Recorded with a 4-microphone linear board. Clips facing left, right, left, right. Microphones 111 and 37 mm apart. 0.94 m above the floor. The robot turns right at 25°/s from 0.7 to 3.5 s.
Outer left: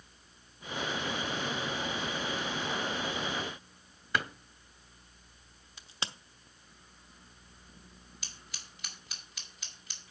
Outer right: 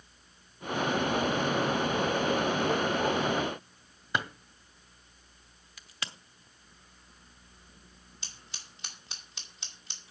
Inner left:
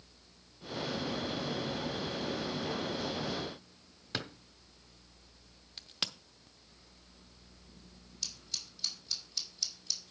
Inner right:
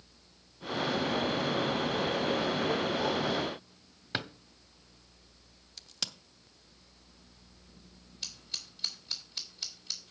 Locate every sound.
4.1 s a drawer: 20° right (ahead or behind), 0.9 m
5.8 s a crack: 25° left (ahead or behind), 0.8 m
8.2 s scissors: 30° right (ahead or behind), 2.5 m